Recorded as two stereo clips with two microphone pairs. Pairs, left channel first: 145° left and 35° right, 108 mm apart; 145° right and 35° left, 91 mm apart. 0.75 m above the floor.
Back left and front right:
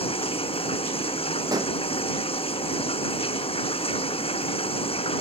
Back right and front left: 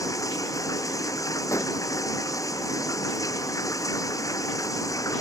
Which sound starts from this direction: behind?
Running water, at 0.0 s.